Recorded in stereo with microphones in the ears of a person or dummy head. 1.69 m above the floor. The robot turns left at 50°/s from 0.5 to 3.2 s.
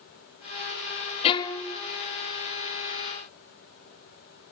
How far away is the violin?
About 0.6 m.